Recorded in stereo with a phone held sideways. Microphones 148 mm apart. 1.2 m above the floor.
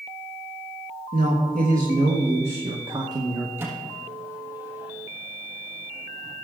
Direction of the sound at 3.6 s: 15° right (ahead or behind).